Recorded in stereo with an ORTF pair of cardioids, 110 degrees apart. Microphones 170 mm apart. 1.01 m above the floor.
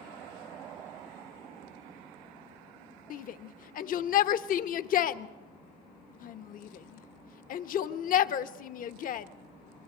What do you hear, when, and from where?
3.1 s a shout: 55° left, 1.0 m